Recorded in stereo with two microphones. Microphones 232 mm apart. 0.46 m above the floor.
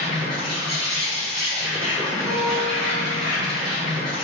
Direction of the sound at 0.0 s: 5° left (ahead or behind).